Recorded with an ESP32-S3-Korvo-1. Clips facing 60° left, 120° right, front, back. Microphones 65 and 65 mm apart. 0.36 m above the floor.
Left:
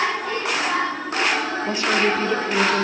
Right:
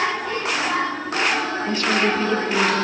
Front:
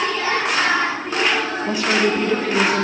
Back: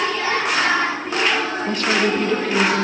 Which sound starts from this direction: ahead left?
A woman speaking, at 1.7 s.